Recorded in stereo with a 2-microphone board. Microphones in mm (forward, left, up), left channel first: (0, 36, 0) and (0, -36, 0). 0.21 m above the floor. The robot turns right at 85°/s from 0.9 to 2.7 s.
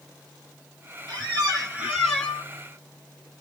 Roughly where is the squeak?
Right.